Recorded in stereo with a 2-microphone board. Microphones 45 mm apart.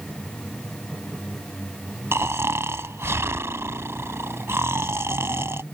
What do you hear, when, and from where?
2.1 s snoring: 80° right